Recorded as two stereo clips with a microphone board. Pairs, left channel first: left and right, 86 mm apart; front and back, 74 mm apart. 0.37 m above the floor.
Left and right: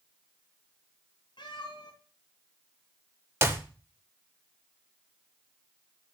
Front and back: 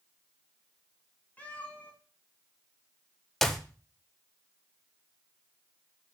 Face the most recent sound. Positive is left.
turn(degrees=-80)